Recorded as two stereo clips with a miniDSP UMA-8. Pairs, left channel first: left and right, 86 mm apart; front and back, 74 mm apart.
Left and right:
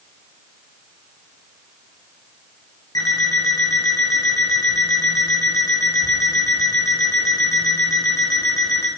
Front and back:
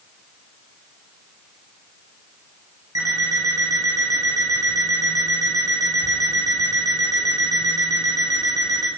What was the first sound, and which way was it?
An alarm clock, 140° left.